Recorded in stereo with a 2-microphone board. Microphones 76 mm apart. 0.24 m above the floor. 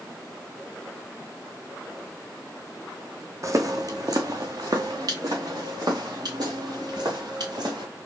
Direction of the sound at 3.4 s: 40° right (ahead or behind).